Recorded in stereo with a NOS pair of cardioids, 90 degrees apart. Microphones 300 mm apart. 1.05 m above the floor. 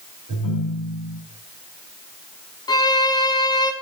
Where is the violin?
15° left, 0.8 m.